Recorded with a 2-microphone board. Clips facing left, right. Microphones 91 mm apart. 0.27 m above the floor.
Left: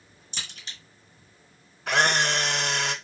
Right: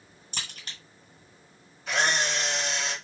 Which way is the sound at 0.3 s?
50° right (ahead or behind).